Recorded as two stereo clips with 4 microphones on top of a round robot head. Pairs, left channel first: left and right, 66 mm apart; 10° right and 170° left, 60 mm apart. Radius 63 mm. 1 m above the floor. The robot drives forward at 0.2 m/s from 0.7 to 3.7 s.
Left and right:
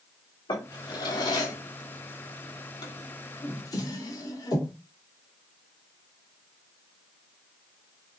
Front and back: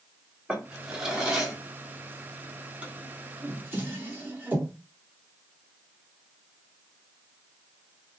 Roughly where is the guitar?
I don't hear a guitar.